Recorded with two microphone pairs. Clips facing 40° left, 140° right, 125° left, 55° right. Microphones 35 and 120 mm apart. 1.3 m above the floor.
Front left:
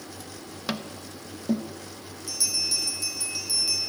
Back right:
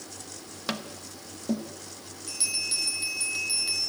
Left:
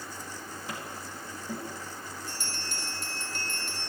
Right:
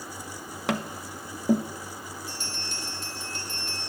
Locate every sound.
0.7 s tapping: 45° right, 1.2 m
2.3 s a bell: 160° left, 7 m